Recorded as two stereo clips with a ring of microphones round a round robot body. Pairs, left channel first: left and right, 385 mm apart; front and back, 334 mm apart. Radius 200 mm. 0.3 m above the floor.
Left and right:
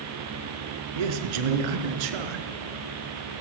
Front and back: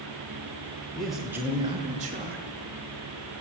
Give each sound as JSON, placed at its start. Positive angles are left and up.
{"t": 0.9, "sound": "a man speaking", "azimuth_deg": -90, "distance_m": 5.0}